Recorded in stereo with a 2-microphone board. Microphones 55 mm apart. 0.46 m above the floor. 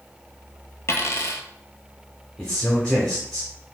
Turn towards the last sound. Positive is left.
turn(degrees=15)  # may be behind; listen again after turning